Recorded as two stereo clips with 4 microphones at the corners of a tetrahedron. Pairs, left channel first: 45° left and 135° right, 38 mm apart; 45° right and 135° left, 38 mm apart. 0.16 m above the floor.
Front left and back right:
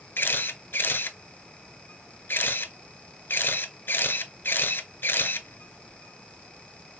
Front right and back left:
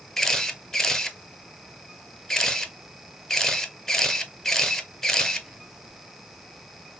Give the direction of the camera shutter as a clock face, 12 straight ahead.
11 o'clock.